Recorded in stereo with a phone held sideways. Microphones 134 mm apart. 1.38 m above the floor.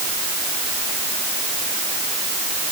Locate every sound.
Only background noise.